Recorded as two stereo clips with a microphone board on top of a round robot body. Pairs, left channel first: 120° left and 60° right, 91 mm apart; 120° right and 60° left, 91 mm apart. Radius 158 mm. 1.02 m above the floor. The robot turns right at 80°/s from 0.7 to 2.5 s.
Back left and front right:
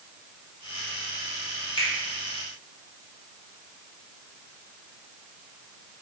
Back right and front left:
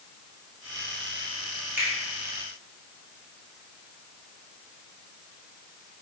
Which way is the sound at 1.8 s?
130° left.